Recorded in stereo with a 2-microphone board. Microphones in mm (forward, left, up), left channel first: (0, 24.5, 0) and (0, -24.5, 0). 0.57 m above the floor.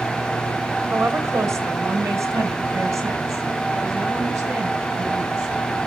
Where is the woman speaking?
65° right (ahead or behind), 2 m; by 5.6 s 75° right (ahead or behind), 8 m.